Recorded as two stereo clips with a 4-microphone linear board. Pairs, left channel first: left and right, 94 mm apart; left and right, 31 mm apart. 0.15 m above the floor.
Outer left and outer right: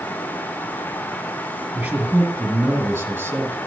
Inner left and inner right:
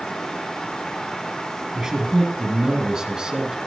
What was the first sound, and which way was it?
A man speaking, 15° right (ahead or behind).